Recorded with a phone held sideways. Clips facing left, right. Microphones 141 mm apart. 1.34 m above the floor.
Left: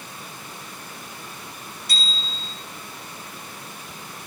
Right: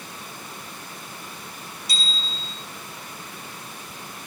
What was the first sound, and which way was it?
A bicycle bell, 55° left (ahead or behind).